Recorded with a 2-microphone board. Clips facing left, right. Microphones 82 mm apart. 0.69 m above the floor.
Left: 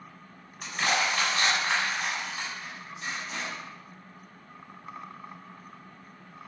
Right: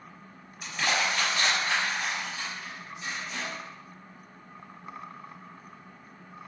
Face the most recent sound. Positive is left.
turn(degrees=55)  # may be behind; listen again after turning